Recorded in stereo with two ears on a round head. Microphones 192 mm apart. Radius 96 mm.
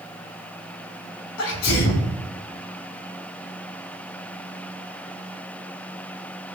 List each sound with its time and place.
1.4 s a sneeze: 70° left (ahead or behind), 3 m